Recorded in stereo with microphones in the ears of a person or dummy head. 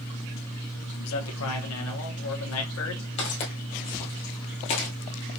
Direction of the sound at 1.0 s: 85° left.